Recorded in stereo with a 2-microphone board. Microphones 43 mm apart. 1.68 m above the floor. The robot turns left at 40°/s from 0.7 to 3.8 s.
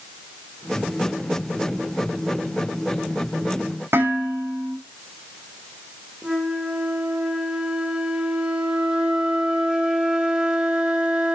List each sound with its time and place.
3.9 s dishes clattering: 75° right (ahead or behind), 6.5 m
6.2 s a flute: 25° right (ahead or behind), 3 m